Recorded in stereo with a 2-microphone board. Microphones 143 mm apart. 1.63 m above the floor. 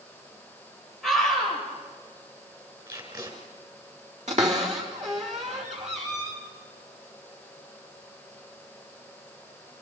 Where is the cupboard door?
55° right (ahead or behind), 3.5 m.